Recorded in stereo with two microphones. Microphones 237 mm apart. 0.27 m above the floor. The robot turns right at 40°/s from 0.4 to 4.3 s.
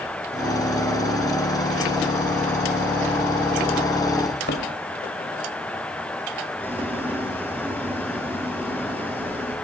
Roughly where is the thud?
Left.